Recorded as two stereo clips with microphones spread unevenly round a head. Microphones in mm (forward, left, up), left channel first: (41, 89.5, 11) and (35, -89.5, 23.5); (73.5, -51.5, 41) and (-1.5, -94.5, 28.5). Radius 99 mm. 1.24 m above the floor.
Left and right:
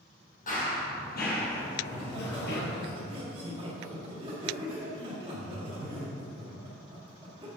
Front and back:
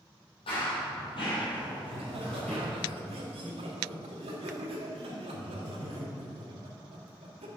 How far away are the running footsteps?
About 3 m.